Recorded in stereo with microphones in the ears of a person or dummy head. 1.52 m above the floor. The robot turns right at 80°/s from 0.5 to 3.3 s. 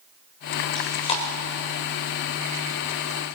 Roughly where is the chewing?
Centre.